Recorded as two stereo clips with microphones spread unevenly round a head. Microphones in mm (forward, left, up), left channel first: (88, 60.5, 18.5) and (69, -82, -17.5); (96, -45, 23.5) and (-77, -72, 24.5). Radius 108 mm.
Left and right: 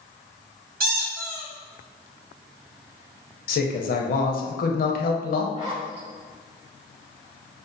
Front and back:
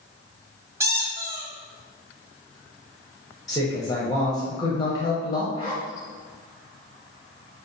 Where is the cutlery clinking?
I don't hear cutlery clinking.